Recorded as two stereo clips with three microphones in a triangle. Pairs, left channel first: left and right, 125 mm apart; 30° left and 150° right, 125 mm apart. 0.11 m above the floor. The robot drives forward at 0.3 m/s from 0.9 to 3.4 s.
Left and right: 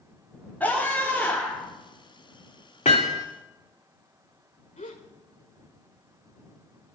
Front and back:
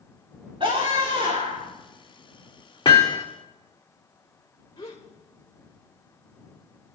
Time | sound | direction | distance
0.6 | a scream | 165° left | 5.5 m
2.9 | hammering | 80° left | 3 m
4.8 | a gasp | 85° left | 4 m